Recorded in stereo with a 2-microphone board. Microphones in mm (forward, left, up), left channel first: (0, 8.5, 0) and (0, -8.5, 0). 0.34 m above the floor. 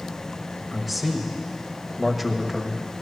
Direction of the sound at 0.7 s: 5° right (ahead or behind).